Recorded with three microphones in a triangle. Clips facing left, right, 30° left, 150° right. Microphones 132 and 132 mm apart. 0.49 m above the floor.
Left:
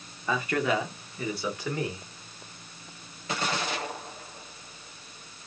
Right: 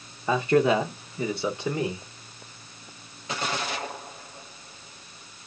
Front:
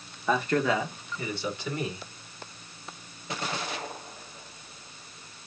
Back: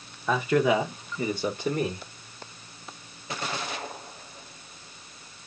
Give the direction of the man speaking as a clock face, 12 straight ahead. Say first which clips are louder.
Right 6 dB, back 3 dB; 2 o'clock.